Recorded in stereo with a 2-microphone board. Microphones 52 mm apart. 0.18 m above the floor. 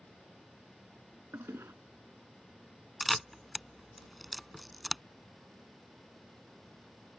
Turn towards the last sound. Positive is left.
turn(degrees=0)  # may be behind; listen again after turning